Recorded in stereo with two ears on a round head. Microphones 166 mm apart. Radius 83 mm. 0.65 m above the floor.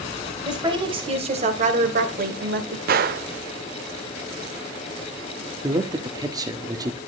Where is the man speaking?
20° right (ahead or behind), 1.3 m.